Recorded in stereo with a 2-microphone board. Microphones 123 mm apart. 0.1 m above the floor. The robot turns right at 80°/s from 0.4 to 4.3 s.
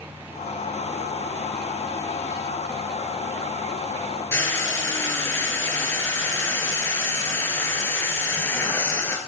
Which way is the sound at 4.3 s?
20° left (ahead or behind).